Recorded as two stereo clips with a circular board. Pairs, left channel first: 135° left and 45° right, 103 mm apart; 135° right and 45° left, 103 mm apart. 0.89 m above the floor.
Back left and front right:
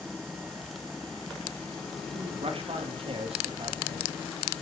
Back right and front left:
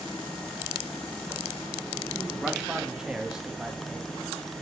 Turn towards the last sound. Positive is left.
turn(degrees=-35)